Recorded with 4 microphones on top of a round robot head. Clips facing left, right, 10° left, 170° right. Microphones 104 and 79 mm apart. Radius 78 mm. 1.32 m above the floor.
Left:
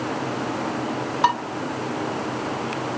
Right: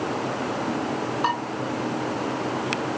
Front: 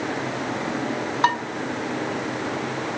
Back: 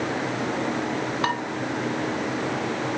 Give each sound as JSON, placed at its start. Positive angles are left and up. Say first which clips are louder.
{"t": 1.2, "sound": "dishes clattering", "louder": "left 6 dB, front 7 dB", "azimuth_deg": 75, "distance_m": 8.0}